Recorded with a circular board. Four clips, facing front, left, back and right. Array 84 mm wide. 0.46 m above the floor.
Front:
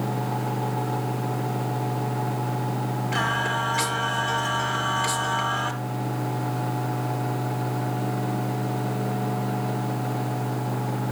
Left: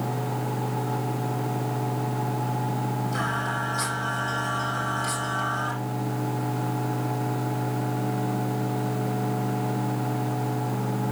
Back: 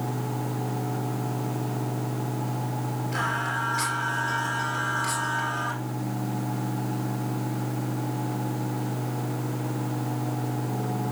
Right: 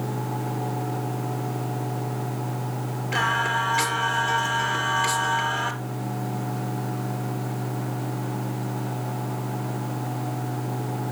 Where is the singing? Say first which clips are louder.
Right 4 dB, front 3 dB; 65° right, 3 m.